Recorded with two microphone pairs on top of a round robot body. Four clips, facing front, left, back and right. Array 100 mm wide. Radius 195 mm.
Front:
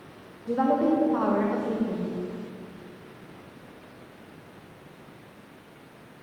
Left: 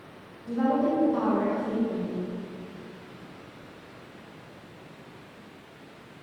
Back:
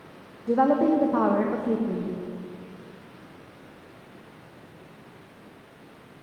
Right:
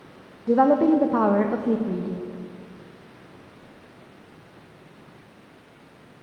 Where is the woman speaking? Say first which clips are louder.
Right 8 dB, back 2 dB; 115° right, 0.6 m.